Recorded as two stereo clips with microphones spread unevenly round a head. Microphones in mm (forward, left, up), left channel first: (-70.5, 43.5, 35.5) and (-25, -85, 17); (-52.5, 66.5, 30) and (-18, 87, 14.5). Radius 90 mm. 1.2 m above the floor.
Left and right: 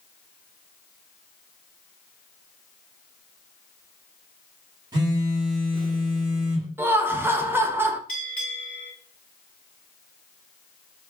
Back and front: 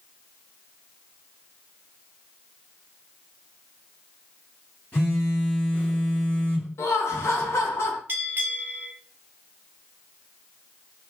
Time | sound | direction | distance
4.9 | a phone buzzing | 130° right | 1.0 m
6.8 | laughter | 145° right | 0.7 m
8.1 | a bell | 75° left | 1.3 m